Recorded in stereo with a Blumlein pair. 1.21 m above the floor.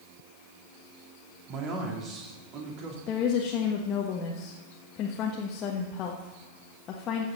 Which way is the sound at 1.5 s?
35° right.